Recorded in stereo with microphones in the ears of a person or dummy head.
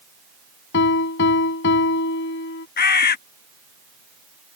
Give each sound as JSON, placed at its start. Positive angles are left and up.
{"t": 0.7, "sound": "a piano", "side_deg": 60}
{"t": 2.8, "sound": "a bird", "side_deg": 50}